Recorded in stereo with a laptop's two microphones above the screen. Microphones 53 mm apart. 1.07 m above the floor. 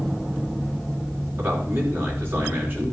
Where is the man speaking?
45° right (ahead or behind), 3.5 m.